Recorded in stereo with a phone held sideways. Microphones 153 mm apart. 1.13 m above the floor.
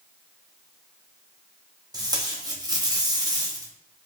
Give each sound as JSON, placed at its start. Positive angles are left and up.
{"t": 1.9, "sound": "tape being pulled", "side_deg": -25, "distance_m": 0.7}